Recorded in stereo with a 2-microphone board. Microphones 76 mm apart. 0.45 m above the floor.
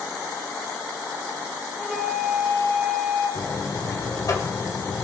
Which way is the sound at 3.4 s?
45° left (ahead or behind).